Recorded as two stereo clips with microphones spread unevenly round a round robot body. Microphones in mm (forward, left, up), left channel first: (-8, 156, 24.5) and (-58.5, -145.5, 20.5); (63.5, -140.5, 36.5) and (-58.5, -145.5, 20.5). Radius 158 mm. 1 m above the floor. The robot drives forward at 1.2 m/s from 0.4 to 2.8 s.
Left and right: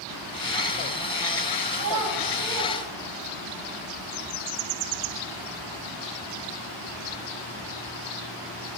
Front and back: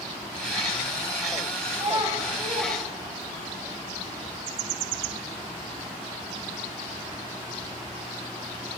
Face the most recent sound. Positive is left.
turn(degrees=-145)